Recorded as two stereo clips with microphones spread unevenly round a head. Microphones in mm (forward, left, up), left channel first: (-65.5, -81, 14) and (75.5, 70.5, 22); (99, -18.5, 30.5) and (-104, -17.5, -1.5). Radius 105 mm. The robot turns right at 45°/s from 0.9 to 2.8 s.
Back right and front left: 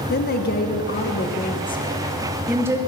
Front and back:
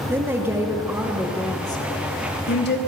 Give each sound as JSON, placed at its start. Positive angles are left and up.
{"t": 0.1, "sound": "a woman speaking", "azimuth_deg": -110, "distance_m": 1.1}